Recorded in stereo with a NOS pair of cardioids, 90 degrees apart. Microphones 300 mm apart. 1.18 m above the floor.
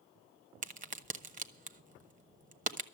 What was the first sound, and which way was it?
A crack, 25° right.